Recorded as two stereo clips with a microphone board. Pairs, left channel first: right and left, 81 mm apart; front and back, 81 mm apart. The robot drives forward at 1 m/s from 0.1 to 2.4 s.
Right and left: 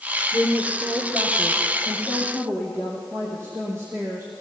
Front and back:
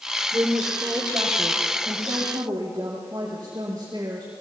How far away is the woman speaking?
About 5 m.